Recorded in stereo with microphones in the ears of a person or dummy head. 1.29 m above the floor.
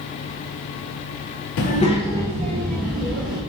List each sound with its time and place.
1.6 s a child speaking: 55° left (ahead or behind), 0.6 m; by 3.4 s 5° right (ahead or behind), 2.5 m